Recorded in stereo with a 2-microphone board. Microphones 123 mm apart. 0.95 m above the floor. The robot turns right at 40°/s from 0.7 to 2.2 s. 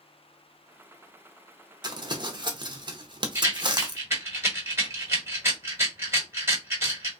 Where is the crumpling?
40° right (ahead or behind), 0.7 m.